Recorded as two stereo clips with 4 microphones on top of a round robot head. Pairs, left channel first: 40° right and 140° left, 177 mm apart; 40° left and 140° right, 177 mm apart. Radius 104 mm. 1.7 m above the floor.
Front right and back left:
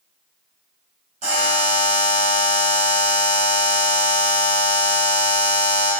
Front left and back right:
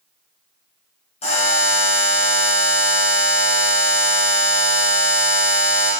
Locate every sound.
1.2 s a buzzer: 90° left, 0.7 m